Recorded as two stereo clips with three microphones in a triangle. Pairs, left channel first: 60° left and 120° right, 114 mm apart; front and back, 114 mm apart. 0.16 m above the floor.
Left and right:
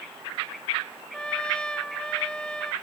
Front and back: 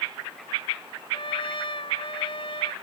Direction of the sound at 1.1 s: 20° right.